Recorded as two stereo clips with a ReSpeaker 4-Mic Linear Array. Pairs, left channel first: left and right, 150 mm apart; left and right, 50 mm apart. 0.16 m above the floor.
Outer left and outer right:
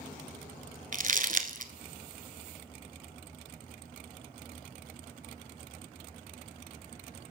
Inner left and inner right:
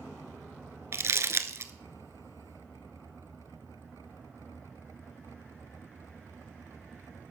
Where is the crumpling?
60° right (ahead or behind), 0.8 m.